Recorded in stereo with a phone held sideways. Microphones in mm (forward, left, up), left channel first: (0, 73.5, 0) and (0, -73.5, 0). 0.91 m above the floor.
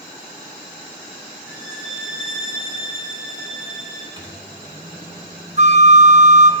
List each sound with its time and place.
1.5 s a violin: 5° right (ahead or behind), 3 m
4.2 s a microwave: 30° right (ahead or behind), 1.8 m
5.6 s a flute: 50° right (ahead or behind), 0.7 m